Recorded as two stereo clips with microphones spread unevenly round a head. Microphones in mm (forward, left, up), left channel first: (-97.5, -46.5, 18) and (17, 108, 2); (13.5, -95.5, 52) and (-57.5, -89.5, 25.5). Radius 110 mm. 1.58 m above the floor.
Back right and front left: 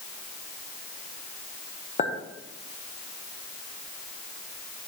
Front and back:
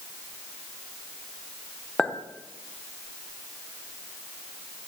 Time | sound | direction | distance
2.0 | a clink | 70° right | 0.8 m